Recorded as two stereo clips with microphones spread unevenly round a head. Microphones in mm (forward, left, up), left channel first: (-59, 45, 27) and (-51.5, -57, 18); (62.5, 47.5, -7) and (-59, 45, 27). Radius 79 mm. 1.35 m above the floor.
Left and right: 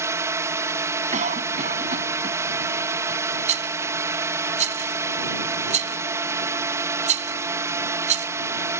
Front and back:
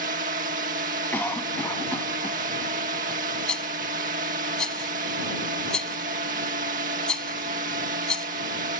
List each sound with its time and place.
0.0 s a drone: 145° right
1.1 s a cough: 80° right
3.5 s a rattle: 85° right